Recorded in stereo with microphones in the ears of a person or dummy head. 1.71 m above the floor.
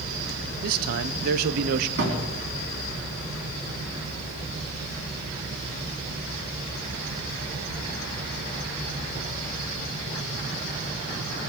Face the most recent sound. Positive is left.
turn(degrees=-55)  # may be behind; listen again after turning